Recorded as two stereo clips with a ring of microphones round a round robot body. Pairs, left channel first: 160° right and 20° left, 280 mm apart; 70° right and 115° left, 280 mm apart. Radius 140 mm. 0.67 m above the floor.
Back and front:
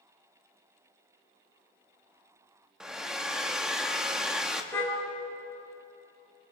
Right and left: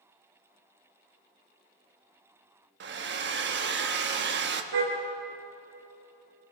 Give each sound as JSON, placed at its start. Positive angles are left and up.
{"t": 2.8, "sound": "a hair dryer", "azimuth_deg": 110, "distance_m": 1.2}
{"t": 4.7, "sound": "a car horn", "azimuth_deg": 120, "distance_m": 7.0}